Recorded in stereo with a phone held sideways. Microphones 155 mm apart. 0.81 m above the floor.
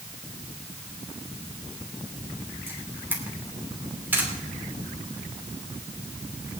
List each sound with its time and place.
2.7 s a camera shutter: 15° right (ahead or behind), 2.5 m